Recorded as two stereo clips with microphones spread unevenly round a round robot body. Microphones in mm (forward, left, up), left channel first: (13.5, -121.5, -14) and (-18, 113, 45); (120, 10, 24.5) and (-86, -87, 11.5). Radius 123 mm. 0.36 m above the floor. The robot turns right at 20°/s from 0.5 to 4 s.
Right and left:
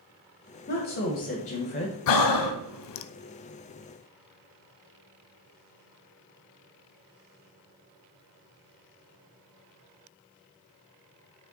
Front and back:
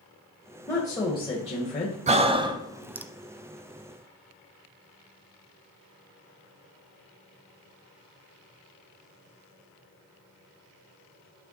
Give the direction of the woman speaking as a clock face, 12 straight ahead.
2 o'clock.